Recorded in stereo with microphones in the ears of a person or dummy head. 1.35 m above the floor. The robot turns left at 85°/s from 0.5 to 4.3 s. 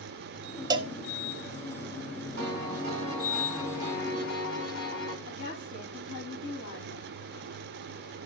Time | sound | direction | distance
0.7 | a cowbell | 20° right (ahead or behind) | 0.7 m
2.4 | a piano | 90° right | 6.5 m
5.2 | a woman speaking | 85° left | 7.5 m